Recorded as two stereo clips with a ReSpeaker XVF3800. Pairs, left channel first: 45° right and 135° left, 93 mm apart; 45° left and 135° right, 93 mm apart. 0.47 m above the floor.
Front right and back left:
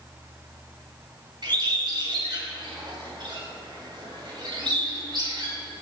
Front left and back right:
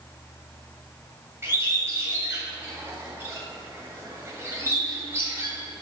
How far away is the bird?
About 2 m.